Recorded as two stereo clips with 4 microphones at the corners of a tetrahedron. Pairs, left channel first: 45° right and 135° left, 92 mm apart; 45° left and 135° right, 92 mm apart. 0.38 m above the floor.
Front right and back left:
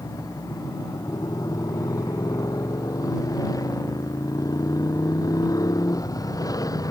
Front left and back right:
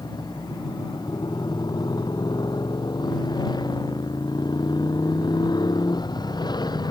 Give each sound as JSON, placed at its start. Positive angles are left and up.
{"t": 0.0, "sound": "a motorcycle", "azimuth_deg": 5}